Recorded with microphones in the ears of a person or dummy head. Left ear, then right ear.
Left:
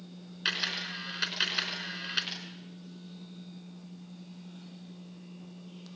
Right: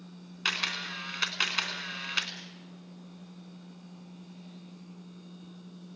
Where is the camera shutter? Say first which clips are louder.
Right 1 dB; 30° right (ahead or behind), 3.5 m.